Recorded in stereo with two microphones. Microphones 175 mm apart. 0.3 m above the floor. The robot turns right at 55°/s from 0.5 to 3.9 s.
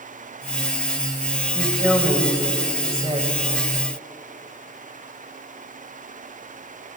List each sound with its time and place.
1.6 s a woman speaking: 170° left, 1.3 m; by 3.4 s 90° right, 1.3 m